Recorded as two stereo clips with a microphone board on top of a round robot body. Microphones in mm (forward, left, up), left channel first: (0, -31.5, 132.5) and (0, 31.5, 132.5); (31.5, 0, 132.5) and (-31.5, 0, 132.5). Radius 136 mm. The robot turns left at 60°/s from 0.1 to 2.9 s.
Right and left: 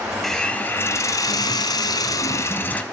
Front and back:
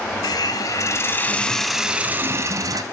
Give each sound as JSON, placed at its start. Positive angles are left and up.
{"t": 0.2, "sound": "a hiss", "azimuth_deg": -5, "distance_m": 0.5}